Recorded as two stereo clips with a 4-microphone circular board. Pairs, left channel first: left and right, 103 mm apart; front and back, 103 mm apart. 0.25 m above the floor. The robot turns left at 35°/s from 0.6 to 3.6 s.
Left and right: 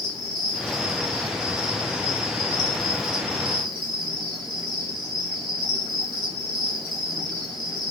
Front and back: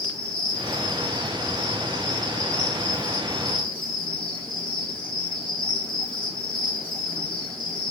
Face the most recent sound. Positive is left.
turn(degrees=-85)